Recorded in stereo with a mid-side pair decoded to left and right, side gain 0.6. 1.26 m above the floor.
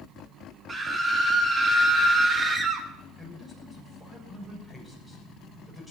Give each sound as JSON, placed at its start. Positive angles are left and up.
{"t": 0.7, "sound": "a scream", "azimuth_deg": -25, "distance_m": 2.0}
{"t": 3.2, "sound": "a man speaking", "azimuth_deg": 5, "distance_m": 7.0}